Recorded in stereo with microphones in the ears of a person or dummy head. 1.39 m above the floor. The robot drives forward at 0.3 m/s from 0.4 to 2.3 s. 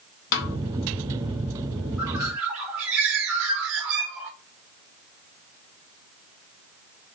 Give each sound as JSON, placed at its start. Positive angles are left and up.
{"t": 0.3, "sound": "a snare drum", "side_deg": 55, "distance_m": 0.5}
{"t": 2.0, "sound": "a bird", "side_deg": -10, "distance_m": 0.8}